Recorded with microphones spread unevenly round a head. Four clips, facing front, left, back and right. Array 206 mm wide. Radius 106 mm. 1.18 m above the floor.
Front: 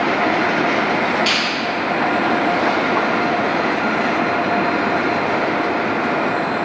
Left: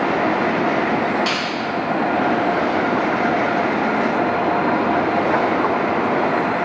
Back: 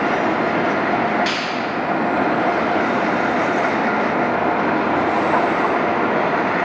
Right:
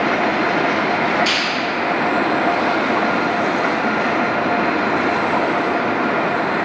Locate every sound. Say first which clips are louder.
1.3 s a finger snap: right 1 dB, front 1 dB; 60° left, 3.5 m